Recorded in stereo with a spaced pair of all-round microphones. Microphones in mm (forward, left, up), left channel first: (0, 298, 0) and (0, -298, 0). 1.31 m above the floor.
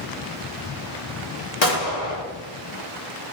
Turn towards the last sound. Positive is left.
turn(degrees=65)  # may be behind; listen again after turning